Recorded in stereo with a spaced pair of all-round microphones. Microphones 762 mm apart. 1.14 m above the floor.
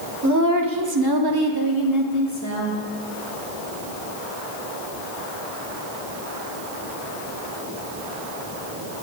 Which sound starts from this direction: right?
A woman speaking, at 0.2 s.